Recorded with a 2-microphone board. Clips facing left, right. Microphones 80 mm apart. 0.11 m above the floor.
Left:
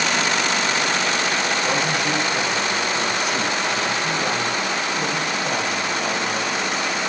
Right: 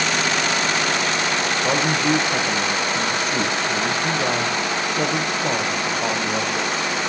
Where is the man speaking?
35° right (ahead or behind), 5 m.